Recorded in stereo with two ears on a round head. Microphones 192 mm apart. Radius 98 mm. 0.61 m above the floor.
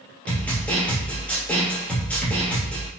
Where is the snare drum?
5° left (ahead or behind), 2 m.